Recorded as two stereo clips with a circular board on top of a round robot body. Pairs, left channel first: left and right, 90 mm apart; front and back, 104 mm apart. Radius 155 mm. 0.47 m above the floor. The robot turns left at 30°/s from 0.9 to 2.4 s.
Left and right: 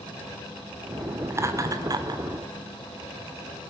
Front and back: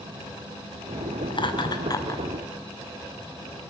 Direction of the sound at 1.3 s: 30° right.